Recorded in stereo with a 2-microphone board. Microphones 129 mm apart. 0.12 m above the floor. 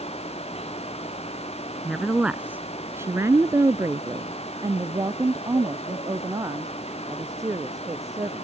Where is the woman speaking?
Centre (ahead or behind); by 8.4 s 25° right (ahead or behind).